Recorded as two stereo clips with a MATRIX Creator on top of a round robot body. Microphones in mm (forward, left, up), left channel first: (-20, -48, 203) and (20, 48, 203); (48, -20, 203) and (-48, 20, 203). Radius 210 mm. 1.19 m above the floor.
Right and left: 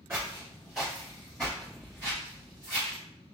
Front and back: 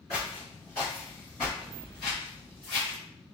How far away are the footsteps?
About 1.8 m.